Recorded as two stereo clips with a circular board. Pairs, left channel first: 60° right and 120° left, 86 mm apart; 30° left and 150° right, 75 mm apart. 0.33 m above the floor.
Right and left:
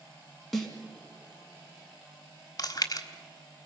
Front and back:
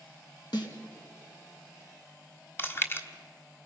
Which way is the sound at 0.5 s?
30° left.